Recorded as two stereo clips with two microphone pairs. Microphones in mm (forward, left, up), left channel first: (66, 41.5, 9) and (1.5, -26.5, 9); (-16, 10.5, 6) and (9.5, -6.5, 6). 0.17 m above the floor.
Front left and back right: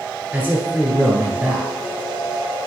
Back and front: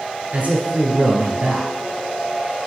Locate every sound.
0.3 s a man speaking: 60° right, 1.8 m